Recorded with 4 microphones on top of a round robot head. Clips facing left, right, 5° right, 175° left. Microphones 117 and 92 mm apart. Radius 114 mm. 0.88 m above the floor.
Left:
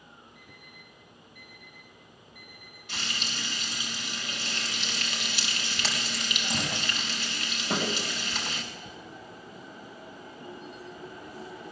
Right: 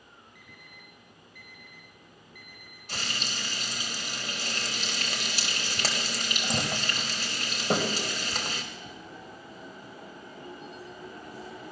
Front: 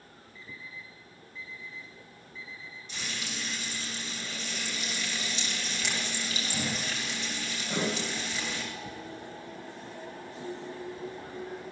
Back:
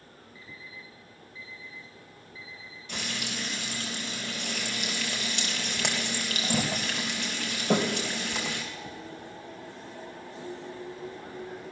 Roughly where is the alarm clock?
Right.